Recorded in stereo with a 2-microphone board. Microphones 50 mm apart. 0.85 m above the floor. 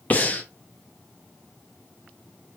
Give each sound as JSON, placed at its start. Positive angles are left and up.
{"t": 0.1, "sound": "breathing", "side_deg": 30, "distance_m": 0.6}